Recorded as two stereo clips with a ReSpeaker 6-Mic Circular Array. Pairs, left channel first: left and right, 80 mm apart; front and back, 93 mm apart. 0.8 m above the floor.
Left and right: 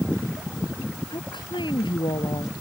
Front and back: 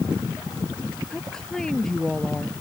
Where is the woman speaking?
85° left.